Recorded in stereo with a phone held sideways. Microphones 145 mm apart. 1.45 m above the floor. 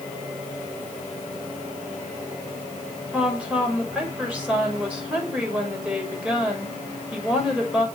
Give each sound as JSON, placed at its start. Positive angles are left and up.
{"t": 3.1, "sound": "a woman speaking", "side_deg": -10, "distance_m": 5.5}